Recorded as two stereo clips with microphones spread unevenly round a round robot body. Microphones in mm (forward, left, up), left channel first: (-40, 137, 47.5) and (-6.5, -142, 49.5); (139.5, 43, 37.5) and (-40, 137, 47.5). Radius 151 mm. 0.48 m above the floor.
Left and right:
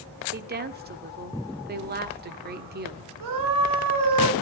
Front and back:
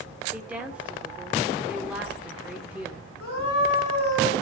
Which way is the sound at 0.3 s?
125° right.